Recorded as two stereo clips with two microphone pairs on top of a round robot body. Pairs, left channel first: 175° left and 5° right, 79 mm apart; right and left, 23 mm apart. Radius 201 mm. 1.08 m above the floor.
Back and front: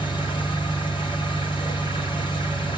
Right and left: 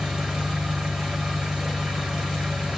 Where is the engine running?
165° left, 1.2 m.